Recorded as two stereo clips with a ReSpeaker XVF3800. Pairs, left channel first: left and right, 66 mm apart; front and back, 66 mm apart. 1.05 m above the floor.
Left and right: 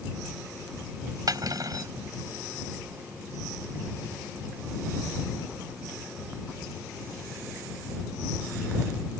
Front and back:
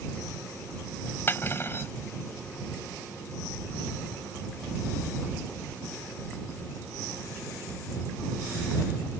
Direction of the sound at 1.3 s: 60° right.